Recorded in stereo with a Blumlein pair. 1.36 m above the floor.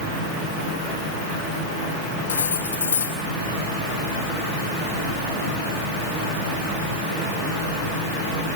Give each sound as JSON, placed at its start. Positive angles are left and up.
{"t": 2.3, "sound": "cutlery clinking", "azimuth_deg": 70, "distance_m": 5.0}